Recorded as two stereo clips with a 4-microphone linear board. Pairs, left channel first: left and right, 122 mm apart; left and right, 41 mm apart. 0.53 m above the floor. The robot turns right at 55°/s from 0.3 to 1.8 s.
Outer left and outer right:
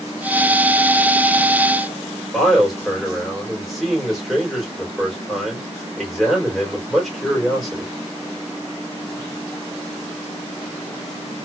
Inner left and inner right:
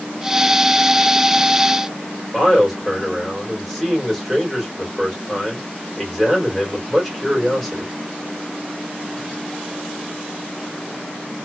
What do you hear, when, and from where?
2.3 s a man speaking: centre (ahead or behind), 2.5 m